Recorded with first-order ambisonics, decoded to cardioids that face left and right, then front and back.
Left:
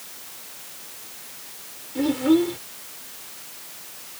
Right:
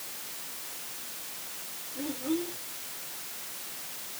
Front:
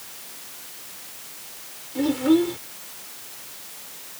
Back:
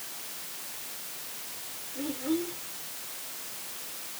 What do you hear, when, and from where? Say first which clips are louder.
1.9 s a child speaking: left 13 dB, front 12 dB; 45° left